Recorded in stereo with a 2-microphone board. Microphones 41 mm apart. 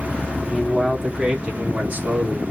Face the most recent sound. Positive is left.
turn(degrees=-45)  # may be behind; listen again after turning